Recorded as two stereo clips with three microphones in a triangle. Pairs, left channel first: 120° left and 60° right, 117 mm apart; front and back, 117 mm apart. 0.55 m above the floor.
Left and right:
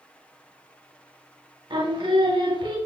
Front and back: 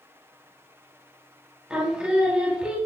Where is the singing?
100° right, 0.7 m.